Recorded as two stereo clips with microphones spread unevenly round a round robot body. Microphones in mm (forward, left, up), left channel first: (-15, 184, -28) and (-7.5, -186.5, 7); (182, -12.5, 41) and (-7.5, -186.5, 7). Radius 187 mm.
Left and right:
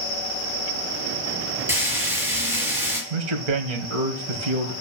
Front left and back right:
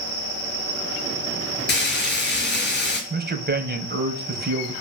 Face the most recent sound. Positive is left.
turn(degrees=-90)